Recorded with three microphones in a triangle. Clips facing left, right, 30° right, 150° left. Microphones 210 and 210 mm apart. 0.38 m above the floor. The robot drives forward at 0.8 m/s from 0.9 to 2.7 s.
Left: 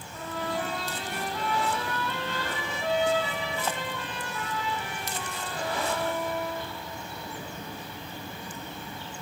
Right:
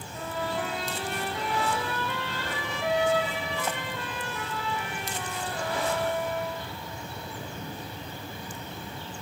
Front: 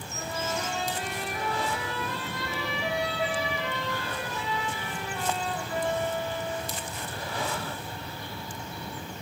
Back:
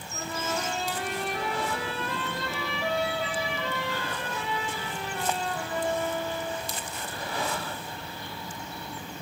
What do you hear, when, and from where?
0.1 s a trumpet: 170° right, 8 m; by 6.7 s 175° right, 9.5 m